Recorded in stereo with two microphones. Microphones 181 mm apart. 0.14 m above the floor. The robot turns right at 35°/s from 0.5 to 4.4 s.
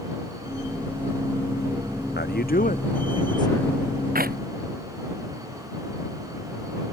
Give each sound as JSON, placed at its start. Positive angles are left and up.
{"t": 2.2, "sound": "a man speaking", "azimuth_deg": 110}
{"t": 4.2, "sound": "a clap", "side_deg": -50}